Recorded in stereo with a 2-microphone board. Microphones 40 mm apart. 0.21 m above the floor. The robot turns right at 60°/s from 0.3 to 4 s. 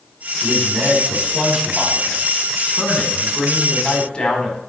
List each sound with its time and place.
0.4 s a man speaking: 95° right, 1.6 m; by 4.6 s 120° left, 1.6 m